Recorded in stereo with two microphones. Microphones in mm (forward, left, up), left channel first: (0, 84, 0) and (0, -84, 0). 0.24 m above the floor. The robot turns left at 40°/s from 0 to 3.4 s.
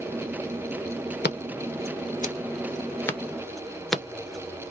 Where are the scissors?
85° left, 0.7 m; by 4.7 s centre (ahead or behind), 0.7 m.